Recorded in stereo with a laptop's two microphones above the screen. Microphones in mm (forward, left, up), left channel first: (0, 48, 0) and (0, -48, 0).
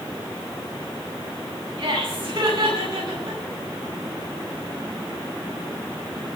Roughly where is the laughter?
Right.